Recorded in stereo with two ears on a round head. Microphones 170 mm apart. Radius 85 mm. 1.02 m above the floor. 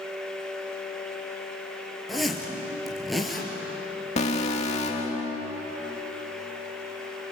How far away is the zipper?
About 3 m.